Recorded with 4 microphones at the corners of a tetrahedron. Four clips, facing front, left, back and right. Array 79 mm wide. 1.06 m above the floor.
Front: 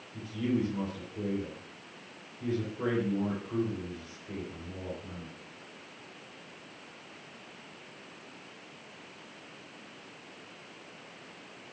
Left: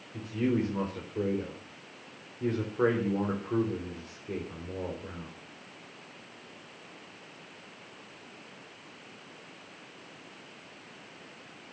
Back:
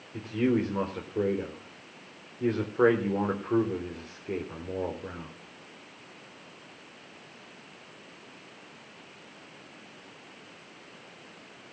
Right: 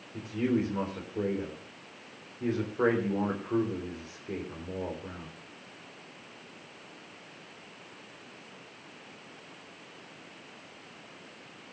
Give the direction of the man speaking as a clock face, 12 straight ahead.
6 o'clock.